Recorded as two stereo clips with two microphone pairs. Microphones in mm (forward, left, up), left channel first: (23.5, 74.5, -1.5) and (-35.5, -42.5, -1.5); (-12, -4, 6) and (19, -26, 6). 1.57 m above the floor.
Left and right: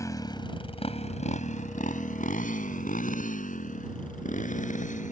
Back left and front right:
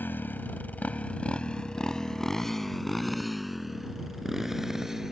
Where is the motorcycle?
130° left; by 5.1 s 45° left.